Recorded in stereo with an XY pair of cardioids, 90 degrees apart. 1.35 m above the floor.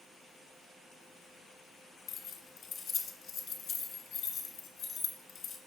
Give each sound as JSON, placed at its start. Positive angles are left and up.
{"t": 2.1, "sound": "keys jangling", "azimuth_deg": 70, "distance_m": 2.0}